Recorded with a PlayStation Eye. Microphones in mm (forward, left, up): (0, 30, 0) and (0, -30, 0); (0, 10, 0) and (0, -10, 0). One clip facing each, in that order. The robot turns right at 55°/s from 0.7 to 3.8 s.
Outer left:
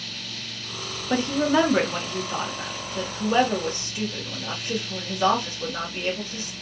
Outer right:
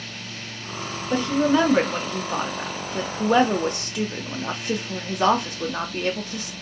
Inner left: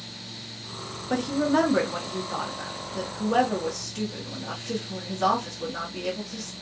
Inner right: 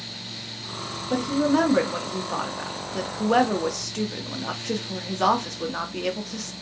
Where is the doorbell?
I don't hear a doorbell.